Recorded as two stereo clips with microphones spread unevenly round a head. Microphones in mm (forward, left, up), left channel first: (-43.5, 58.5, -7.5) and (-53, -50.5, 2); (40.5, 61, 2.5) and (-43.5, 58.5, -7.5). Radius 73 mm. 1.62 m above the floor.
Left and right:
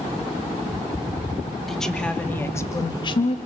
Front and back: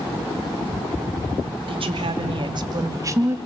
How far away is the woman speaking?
About 3 m.